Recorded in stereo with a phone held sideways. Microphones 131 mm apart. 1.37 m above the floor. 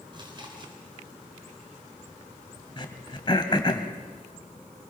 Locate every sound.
0.1 s chewing: 35° right (ahead or behind), 3.5 m
2.8 s throat clearing: 35° left (ahead or behind), 1.5 m